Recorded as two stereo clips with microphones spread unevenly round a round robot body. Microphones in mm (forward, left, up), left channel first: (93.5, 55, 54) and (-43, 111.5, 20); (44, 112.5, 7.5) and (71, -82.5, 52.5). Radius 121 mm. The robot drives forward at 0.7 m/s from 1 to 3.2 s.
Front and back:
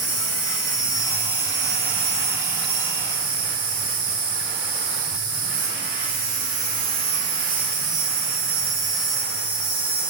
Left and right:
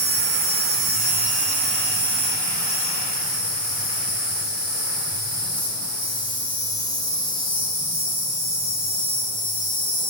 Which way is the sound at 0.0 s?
95° right.